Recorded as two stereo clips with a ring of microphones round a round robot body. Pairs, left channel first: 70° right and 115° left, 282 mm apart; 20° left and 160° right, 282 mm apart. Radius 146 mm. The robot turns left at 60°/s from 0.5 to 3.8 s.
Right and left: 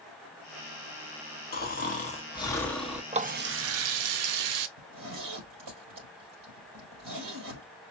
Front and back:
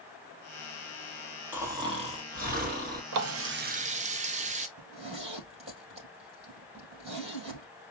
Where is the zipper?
135° left, 3 m.